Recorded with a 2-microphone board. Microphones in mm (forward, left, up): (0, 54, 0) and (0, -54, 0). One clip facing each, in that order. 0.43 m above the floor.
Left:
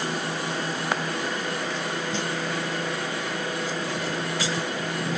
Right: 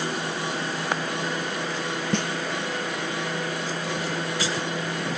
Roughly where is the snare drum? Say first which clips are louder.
Right 7 dB; right.